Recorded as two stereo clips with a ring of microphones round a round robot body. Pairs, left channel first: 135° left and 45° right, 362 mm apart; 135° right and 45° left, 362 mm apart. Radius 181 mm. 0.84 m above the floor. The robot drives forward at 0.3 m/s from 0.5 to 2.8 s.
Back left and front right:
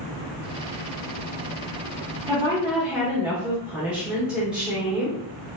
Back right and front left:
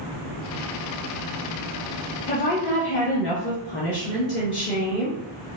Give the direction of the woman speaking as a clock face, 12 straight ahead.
3 o'clock.